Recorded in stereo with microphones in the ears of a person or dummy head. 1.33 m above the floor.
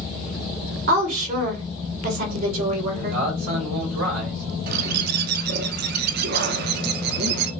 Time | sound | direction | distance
0.9 | a woman speaking | 50° right (ahead or behind) | 3 m
2.9 | a man speaking | 45° right (ahead or behind) | 3 m
4.7 | a bird | 60° right (ahead or behind) | 0.8 m